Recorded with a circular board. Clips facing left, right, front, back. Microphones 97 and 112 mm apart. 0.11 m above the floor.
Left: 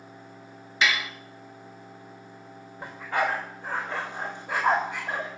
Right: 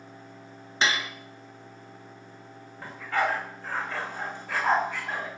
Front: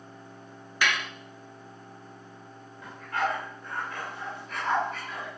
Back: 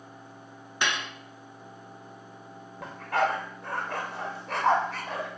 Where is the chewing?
No chewing in this recording.